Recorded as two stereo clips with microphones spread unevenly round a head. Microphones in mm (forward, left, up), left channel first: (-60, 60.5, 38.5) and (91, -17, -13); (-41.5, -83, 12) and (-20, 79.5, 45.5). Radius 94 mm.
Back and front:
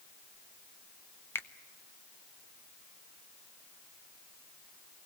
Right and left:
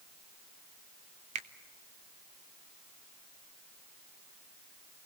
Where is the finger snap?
95° left, 0.9 m.